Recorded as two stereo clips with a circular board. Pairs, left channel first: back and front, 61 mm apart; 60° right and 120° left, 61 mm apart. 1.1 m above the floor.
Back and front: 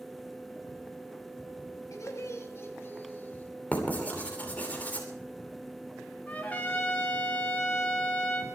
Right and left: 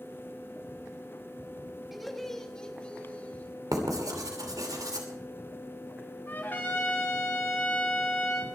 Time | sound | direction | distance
1.9 | laughter | 150° right | 2.5 m
3.7 | writing | 120° left | 3 m
6.3 | a trumpet | 115° right | 2.5 m